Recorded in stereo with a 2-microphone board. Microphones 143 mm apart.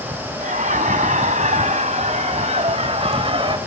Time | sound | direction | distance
0.4 | laughter | 75° right (ahead or behind) | 4 m